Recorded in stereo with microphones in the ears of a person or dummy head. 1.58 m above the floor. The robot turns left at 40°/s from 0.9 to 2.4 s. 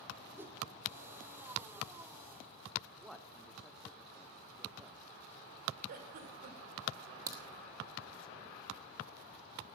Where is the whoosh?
15° right (ahead or behind), 0.9 m.